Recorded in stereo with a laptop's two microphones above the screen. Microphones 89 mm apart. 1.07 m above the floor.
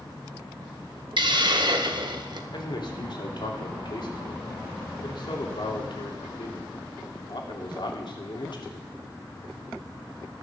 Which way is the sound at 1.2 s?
60° right (ahead or behind).